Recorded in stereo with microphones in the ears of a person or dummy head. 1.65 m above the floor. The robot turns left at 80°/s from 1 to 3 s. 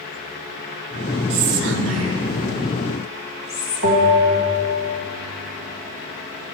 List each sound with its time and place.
1.3 s whispering: 35° right (ahead or behind), 1.1 m; by 3.9 s 5° right (ahead or behind), 1.1 m
3.8 s a bell: 75° right (ahead or behind), 2 m